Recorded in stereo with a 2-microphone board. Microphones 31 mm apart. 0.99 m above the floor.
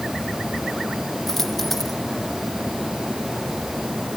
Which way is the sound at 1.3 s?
10° left (ahead or behind).